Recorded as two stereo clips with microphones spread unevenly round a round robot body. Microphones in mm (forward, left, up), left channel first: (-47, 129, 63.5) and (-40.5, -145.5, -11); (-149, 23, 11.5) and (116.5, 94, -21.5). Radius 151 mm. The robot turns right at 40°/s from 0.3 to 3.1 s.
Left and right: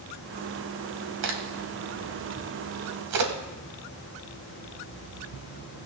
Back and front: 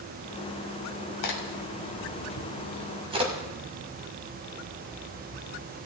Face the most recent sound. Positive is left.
turn(degrees=-60)